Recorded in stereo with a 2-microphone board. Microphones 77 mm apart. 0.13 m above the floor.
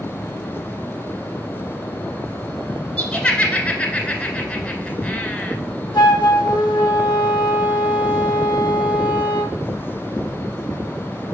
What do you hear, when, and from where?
3.0 s laughter: 10° left (ahead or behind), 1.5 m
5.9 s a flute: 70° left (ahead or behind), 0.7 m